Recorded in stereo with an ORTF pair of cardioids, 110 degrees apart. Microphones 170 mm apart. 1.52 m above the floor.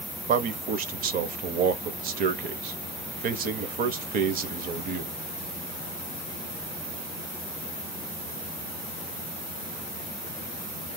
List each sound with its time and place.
0.3 s a man speaking: 60° right, 0.9 m